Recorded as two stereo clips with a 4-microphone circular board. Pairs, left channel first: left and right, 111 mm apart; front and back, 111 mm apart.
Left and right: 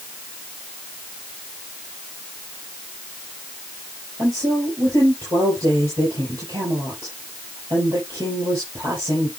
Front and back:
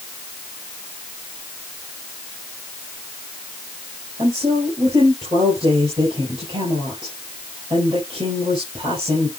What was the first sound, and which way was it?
A woman speaking, 145° right.